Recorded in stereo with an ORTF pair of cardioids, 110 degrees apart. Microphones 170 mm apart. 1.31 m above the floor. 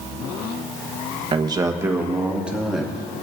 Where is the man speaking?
30° right, 1.2 m; by 2.9 s straight ahead, 2.5 m.